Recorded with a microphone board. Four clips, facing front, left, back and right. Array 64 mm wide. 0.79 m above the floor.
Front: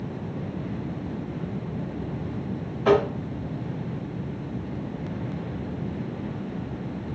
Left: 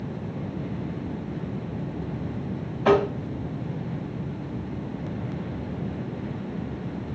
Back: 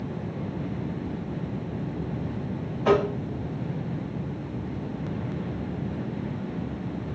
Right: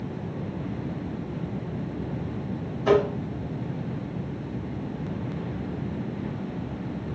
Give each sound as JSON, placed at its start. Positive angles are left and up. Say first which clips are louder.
{"t": 2.9, "sound": "tapping", "louder": "left 1 dB, front 2 dB", "azimuth_deg": 85, "distance_m": 0.9}